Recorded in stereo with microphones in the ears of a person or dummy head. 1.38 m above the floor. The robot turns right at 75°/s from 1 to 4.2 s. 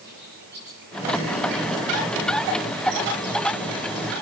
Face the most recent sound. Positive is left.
turn(degrees=115)